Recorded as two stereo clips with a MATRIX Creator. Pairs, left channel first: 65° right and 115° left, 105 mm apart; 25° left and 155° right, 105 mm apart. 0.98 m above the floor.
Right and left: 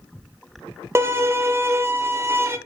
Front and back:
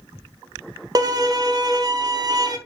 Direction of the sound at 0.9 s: 170° left.